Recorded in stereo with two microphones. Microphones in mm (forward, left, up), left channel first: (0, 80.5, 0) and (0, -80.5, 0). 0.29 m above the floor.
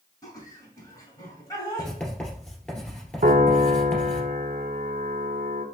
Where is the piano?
65° right (ahead or behind), 0.6 m.